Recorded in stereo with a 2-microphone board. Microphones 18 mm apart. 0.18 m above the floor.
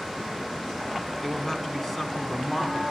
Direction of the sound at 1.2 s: Centre (ahead or behind).